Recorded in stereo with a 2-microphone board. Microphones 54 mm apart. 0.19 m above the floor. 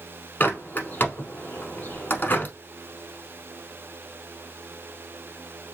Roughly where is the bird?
Left.